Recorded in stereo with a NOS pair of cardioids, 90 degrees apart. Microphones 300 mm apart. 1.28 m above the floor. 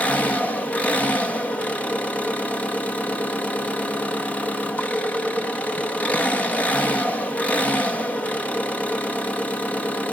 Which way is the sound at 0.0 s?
5° left.